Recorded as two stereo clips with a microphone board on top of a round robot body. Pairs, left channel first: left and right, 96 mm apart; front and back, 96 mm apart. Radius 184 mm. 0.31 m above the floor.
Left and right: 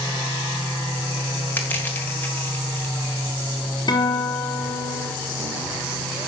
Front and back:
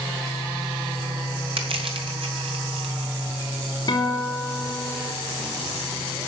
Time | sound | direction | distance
1.6 | crushing | 160° left | 2.5 m
3.9 | a guitar | 45° left | 3.5 m